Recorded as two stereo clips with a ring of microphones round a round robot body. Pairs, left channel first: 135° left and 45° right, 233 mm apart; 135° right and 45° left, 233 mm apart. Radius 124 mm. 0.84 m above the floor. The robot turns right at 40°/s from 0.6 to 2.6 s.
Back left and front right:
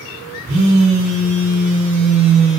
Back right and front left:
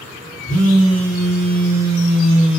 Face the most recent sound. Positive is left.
turn(degrees=30)